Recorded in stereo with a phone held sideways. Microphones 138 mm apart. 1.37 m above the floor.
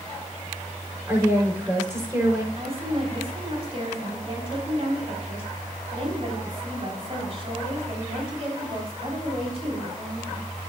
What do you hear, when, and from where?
1.1 s a woman speaking: 15° right (ahead or behind), 5 m
2.5 s a woman speaking: 40° right (ahead or behind), 4.5 m